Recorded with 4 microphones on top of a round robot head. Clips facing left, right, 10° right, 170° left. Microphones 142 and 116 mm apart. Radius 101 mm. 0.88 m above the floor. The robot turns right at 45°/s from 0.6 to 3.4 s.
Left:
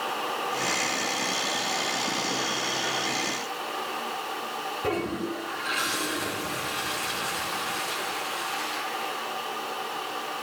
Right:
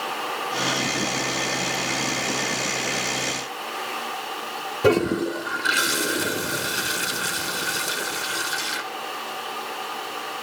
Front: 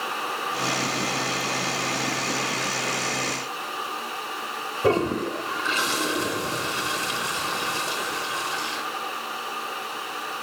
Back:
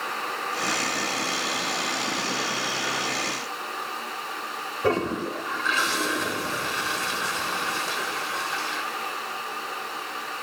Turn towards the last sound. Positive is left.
turn(degrees=-85)